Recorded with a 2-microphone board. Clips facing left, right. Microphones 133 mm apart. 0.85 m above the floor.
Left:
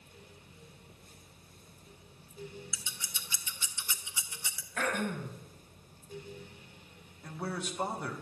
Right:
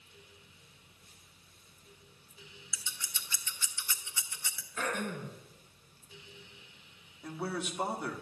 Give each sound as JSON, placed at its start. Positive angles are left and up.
{"t": 2.7, "sound": "scissors", "side_deg": 20, "distance_m": 0.8}
{"t": 4.8, "sound": "throat clearing", "side_deg": 75, "distance_m": 1.6}
{"t": 7.2, "sound": "a man speaking", "side_deg": -5, "distance_m": 1.1}